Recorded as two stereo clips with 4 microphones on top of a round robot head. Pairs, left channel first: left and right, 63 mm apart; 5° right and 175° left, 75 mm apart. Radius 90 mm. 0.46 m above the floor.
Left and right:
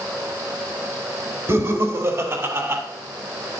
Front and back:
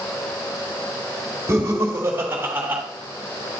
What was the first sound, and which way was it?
Laughter, 130° right.